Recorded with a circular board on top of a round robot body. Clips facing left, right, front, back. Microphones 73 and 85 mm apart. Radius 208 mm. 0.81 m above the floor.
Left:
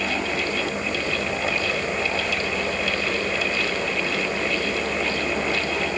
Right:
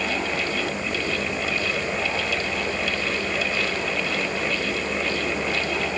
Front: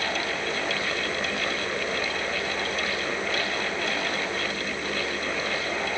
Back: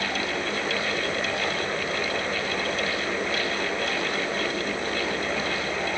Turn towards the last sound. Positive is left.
No sound to turn to.